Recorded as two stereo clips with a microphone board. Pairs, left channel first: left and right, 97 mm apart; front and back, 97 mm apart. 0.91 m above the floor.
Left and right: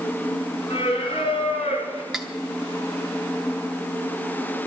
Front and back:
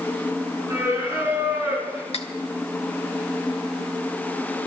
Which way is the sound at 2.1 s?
Straight ahead.